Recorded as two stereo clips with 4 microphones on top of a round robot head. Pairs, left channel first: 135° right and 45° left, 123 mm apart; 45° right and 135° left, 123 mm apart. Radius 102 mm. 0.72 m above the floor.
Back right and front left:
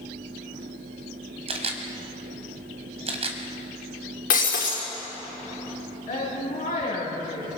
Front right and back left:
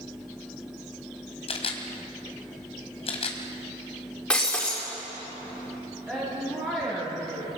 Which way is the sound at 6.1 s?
150° right.